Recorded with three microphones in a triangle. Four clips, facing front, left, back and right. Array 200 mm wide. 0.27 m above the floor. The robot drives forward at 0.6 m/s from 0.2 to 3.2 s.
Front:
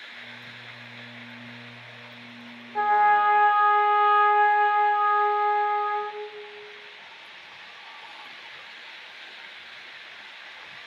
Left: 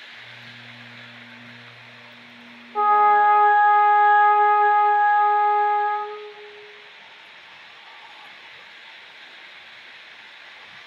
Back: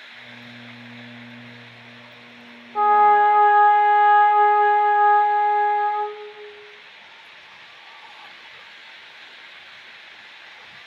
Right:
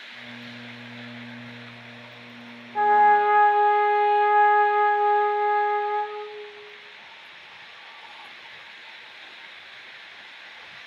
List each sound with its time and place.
2.8 s a trumpet: 135° left, 0.9 m; by 6.2 s 155° left, 1.0 m